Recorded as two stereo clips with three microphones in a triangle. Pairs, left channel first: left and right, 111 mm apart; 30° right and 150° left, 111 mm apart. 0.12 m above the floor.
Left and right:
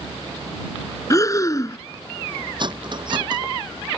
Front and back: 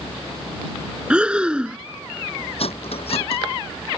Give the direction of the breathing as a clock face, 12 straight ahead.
9 o'clock.